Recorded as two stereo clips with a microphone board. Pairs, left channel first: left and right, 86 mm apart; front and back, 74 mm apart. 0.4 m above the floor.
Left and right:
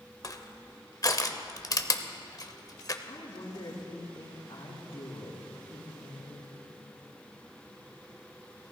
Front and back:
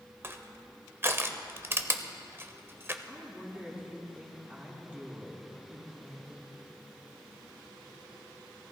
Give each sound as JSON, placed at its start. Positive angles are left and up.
{"t": 0.2, "sound": "crushing", "azimuth_deg": 130, "distance_m": 0.7}
{"t": 3.1, "sound": "a woman speaking", "azimuth_deg": 105, "distance_m": 3.0}